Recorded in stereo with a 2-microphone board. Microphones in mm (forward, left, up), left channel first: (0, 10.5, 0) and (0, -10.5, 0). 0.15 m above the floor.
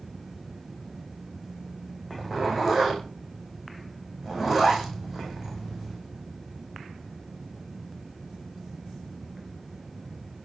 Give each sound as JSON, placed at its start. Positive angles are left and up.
{"t": 2.1, "sound": "a zipper", "side_deg": -15, "distance_m": 9.0}